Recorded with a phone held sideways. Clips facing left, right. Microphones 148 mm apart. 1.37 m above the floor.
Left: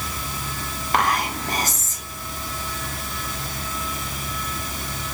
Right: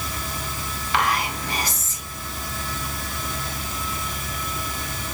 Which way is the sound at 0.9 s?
50° left (ahead or behind).